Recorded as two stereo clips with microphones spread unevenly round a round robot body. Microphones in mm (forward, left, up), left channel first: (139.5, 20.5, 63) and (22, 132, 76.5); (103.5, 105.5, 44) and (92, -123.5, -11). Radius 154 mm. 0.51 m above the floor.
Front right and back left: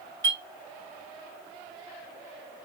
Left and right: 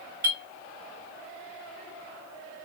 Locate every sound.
0.2 s a clink: 150° right, 1.3 m